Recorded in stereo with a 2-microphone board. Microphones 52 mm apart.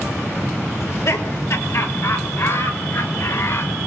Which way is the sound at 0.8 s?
70° left (ahead or behind).